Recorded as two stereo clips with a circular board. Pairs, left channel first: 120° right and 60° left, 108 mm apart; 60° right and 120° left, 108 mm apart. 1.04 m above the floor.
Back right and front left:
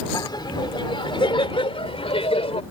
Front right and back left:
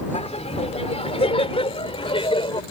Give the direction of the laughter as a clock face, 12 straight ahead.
2 o'clock.